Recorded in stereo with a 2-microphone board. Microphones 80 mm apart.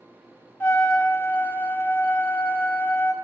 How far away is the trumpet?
About 1.4 m.